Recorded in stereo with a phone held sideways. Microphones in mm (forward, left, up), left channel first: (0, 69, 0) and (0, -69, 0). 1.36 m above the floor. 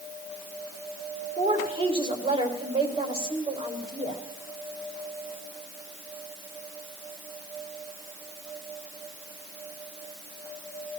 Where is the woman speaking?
40° right (ahead or behind), 4.5 m.